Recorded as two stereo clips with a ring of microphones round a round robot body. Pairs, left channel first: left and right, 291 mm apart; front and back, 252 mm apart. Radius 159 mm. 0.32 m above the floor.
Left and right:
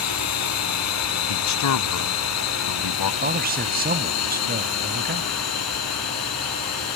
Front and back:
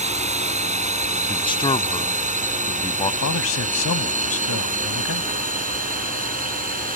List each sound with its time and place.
0.0 s a drone: 120° left; by 7.0 s 125° left
1.3 s a man speaking: 70° left
3.2 s a man speaking: 35° right